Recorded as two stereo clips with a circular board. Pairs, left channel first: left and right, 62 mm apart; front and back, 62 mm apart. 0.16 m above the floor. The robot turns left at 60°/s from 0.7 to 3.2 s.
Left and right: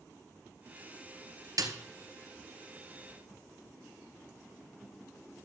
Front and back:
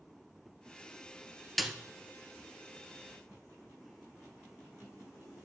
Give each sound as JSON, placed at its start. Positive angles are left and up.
{"t": 1.6, "sound": "a snare drum", "azimuth_deg": -85, "distance_m": 1.5}